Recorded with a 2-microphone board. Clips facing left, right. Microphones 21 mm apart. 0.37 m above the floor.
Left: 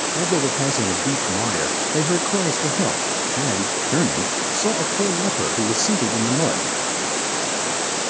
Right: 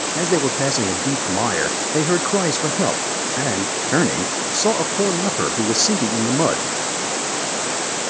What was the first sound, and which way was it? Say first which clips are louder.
A man speaking: right 3 dB; 25° right (ahead or behind).